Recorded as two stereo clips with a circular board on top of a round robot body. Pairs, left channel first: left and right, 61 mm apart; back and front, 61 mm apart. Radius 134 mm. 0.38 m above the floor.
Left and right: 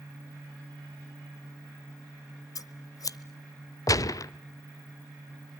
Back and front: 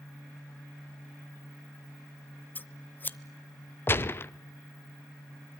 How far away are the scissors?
About 0.8 m.